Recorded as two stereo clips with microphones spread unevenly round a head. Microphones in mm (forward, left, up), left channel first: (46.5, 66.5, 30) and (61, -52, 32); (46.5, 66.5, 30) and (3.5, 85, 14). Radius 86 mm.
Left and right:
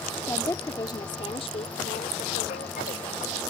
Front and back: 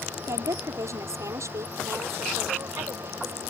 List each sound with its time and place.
0.3 s a woman speaking: 175° left; by 3.4 s 135° left